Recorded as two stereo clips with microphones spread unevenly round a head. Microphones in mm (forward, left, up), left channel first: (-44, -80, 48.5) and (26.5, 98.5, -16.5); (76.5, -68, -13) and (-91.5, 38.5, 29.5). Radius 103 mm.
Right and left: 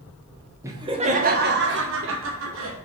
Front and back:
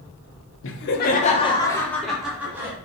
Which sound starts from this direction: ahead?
Laughter, at 0.6 s.